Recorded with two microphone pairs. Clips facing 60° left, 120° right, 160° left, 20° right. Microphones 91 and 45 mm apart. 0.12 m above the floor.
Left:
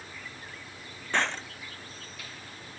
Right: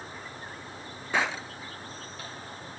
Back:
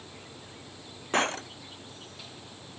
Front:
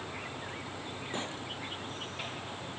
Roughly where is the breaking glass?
Behind left.